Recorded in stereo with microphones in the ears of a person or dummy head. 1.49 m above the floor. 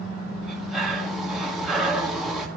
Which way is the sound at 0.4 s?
10° left (ahead or behind).